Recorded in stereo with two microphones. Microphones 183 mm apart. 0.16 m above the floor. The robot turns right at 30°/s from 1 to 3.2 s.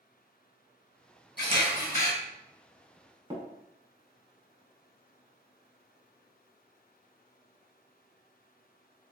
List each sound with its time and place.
1.4 s a camera shutter: 70° left (ahead or behind), 1.6 m; by 2.1 s 50° left (ahead or behind), 1.6 m
3.3 s tapping: 25° right (ahead or behind), 0.8 m